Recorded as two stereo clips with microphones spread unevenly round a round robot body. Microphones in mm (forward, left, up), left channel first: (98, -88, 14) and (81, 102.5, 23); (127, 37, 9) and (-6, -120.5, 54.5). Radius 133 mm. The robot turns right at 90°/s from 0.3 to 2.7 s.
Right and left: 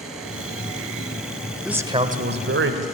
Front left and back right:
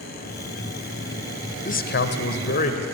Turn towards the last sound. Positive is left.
turn(degrees=100)